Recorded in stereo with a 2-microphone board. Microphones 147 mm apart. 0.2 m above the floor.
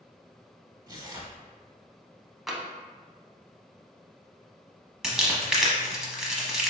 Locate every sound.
0.9 s tearing paper: 25° right (ahead or behind), 0.7 m
2.5 s tapping: centre (ahead or behind), 0.5 m
5.0 s crumpling: 5° right (ahead or behind), 0.7 m